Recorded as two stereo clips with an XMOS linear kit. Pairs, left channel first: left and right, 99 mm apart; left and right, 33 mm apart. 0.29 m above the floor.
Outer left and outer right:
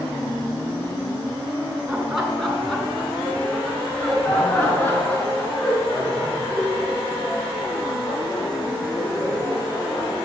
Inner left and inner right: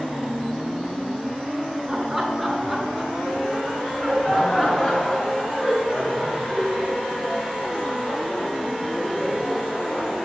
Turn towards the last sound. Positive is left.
turn(degrees=45)  # may be behind; listen again after turning